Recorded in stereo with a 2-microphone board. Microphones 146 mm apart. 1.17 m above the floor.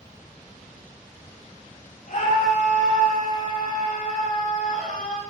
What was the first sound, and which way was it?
A scream, 65° left (ahead or behind).